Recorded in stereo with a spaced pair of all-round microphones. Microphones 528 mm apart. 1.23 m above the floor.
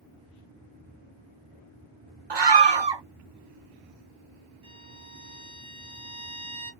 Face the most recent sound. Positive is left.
turn(degrees=-60)  # may be behind; listen again after turning